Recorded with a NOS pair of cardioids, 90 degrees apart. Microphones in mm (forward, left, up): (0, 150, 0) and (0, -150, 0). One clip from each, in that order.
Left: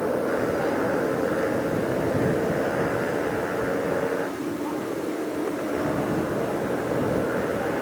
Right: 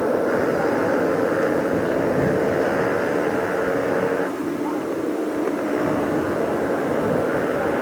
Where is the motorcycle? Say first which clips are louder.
Right 4 dB; 40° right.